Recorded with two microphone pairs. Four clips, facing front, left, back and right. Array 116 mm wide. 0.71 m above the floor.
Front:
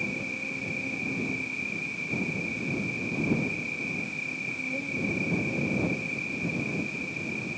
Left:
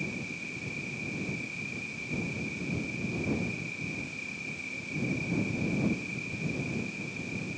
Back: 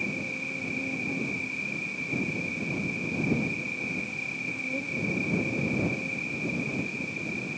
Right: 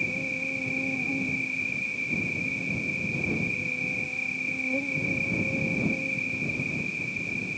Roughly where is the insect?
Right.